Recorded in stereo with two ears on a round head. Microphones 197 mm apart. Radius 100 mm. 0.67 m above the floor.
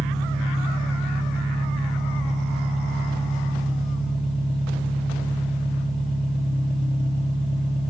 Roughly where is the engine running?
Left.